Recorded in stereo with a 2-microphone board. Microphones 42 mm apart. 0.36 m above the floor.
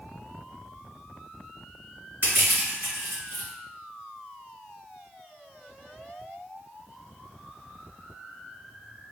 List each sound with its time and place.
2.2 s crushing: 50° right (ahead or behind), 1.9 m